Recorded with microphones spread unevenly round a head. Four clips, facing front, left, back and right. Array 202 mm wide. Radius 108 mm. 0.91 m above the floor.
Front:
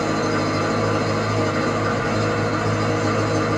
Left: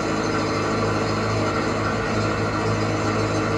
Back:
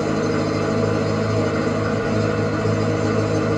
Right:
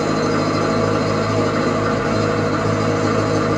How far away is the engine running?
About 0.8 m.